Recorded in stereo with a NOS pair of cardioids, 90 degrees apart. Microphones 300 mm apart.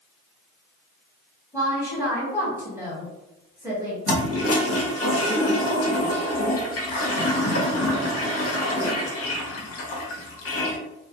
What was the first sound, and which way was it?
A woman speaking, 10° right.